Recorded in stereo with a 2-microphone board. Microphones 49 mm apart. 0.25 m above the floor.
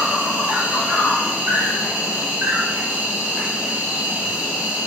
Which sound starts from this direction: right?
An insect, at 0.0 s.